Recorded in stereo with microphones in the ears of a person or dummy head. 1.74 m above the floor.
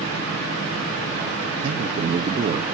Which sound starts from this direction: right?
A man speaking, at 1.6 s.